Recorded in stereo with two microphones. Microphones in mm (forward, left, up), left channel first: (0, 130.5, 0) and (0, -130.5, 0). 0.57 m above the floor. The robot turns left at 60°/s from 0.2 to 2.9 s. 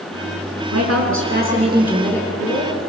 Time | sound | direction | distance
0.7 | a woman speaking | 100° right | 5.5 m